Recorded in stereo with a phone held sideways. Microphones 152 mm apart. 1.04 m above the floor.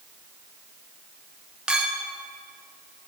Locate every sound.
1.7 s a clink: 5° right (ahead or behind), 0.7 m